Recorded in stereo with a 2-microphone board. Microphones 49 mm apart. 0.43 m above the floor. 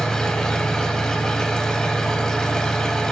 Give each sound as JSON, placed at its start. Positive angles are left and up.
{"t": 0.0, "sound": "an engine running", "side_deg": 15, "distance_m": 0.9}